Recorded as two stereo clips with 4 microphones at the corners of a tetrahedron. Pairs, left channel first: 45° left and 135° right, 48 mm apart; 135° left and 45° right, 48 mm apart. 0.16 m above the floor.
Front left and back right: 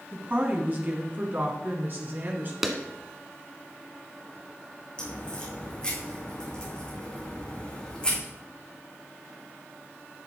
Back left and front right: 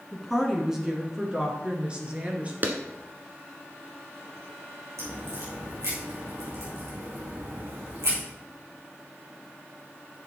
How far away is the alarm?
I don't hear an alarm.